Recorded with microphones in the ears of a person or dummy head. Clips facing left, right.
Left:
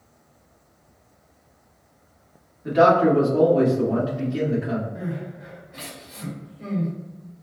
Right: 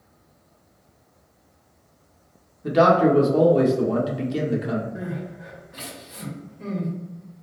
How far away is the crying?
About 1.5 m.